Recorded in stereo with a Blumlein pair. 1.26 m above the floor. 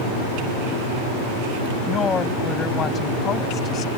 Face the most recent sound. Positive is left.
turn(degrees=30)